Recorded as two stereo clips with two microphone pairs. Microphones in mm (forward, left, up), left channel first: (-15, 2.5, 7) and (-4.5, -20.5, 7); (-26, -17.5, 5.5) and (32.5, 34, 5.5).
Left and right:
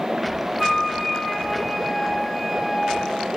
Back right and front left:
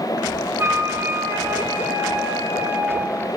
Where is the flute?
35° left, 1.2 m.